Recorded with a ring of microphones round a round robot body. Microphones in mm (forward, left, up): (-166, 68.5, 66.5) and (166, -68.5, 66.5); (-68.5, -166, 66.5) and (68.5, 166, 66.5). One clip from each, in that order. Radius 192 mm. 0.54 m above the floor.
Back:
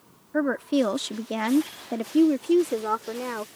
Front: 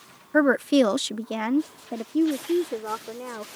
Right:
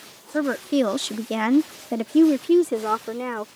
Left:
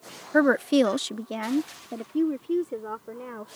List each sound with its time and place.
0.3 s a woman speaking: 25° left; by 3.5 s 140° right